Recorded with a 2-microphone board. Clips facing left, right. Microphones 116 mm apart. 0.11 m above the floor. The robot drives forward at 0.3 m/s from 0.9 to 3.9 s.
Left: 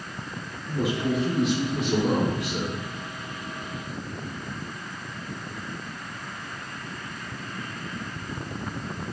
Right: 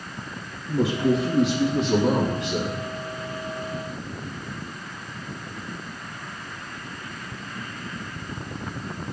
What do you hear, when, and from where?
0.7 s a man speaking: 15° right (ahead or behind), 2.5 m